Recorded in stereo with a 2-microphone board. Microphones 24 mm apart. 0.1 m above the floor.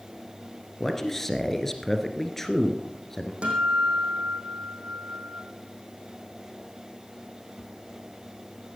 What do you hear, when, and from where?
0.8 s a man speaking: 15° left (ahead or behind), 1.6 m
3.4 s a guitar: 60° right (ahead or behind), 4.5 m